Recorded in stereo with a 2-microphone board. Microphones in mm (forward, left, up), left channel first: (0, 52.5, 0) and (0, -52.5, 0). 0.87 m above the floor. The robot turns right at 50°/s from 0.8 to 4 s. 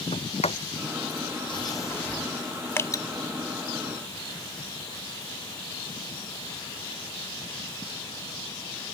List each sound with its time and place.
0.1 s a sliding door: 80° left; by 2.3 s 5° left (ahead or behind)
2.8 s dripping: 25° left (ahead or behind); by 3.0 s 40° left (ahead or behind)